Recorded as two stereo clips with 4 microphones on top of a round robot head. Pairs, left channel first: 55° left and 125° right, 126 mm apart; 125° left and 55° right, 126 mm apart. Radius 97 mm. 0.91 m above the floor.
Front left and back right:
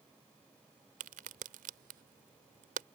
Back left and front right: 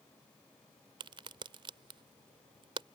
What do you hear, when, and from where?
1.0 s a crack: 110° right